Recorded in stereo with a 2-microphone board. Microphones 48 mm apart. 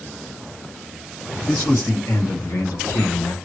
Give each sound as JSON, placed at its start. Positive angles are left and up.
{"t": 1.5, "sound": "a man speaking", "side_deg": 60, "distance_m": 2.5}